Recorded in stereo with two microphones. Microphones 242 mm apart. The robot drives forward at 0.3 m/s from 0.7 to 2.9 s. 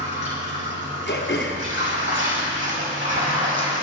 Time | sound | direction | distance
0.0 | running water | 50° right (ahead or behind) | 6.5 m
1.1 | throat clearing | 45° left (ahead or behind) | 2.5 m